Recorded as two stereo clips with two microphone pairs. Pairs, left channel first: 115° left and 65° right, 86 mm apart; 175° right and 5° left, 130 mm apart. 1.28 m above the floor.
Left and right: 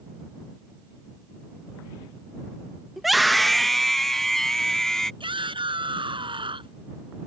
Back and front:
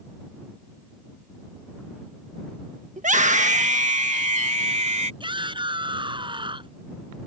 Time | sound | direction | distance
3.0 | a scream | 20° left | ?
5.2 | a shout | 50° right | ?